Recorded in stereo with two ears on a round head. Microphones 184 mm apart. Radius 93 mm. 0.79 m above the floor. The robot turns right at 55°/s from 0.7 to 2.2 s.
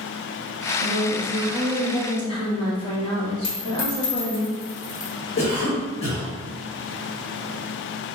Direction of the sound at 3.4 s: 85° left.